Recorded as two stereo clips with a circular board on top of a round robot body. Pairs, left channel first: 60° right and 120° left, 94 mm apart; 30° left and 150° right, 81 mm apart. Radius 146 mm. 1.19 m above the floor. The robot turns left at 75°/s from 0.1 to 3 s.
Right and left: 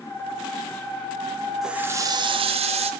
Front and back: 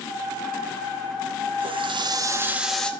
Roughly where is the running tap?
Behind right.